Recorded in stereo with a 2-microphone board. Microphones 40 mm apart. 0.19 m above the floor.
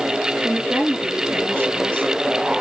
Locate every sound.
0.4 s a woman speaking: 55° right (ahead or behind), 3 m